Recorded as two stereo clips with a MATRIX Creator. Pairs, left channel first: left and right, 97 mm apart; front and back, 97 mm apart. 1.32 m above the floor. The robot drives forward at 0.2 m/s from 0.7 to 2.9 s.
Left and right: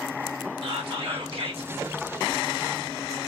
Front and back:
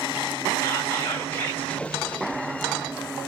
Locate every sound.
0.6 s whispering: 65° right, 1.8 m; by 1.7 s 70° right, 1.7 m